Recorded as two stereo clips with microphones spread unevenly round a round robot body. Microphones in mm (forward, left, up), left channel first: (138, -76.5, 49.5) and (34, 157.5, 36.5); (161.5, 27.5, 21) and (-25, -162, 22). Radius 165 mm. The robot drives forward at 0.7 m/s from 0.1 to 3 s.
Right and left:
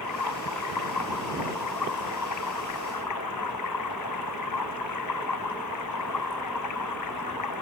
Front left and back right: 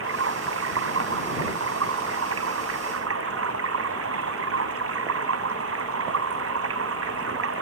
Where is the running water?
95° right; by 7.6 s 100° right.